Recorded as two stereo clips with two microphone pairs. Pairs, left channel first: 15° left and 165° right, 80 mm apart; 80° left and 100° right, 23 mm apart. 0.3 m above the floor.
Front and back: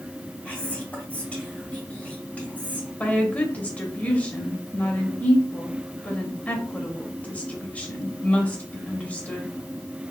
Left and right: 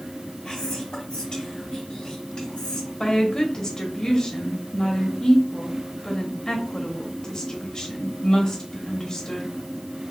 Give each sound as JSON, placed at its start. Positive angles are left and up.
{"t": 0.5, "sound": "whispering", "azimuth_deg": 75, "distance_m": 1.7}
{"t": 3.0, "sound": "a woman speaking", "azimuth_deg": 75, "distance_m": 1.0}